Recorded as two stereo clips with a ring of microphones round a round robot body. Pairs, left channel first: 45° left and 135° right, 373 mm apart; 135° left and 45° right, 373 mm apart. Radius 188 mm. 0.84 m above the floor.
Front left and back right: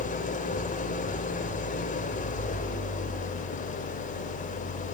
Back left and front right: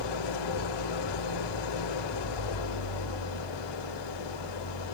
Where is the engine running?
115° left, 2 m.